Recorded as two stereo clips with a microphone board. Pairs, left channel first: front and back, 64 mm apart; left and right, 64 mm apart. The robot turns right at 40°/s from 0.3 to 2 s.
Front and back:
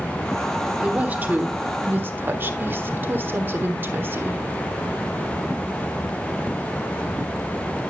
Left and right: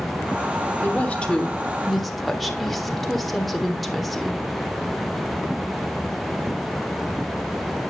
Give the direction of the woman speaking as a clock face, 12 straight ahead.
8 o'clock.